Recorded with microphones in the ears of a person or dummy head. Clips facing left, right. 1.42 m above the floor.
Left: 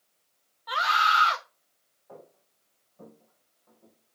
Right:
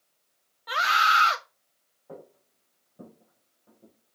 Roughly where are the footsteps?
Right.